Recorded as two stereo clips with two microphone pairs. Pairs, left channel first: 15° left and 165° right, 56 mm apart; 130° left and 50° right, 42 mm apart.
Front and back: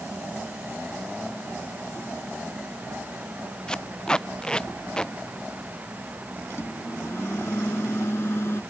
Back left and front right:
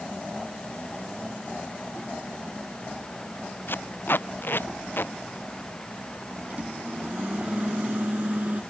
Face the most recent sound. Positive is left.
turn(degrees=-10)